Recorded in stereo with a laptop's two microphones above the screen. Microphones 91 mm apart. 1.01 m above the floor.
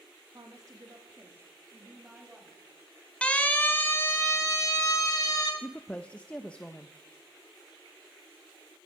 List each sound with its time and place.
0.3 s a woman speaking: 45° right (ahead or behind), 1.8 m; by 2.6 s 10° right (ahead or behind), 3.5 m
3.2 s a siren: 10° left (ahead or behind), 2.5 m; by 5.5 s 40° left (ahead or behind), 3.5 m
5.6 s a woman speaking: 10° left (ahead or behind), 0.9 m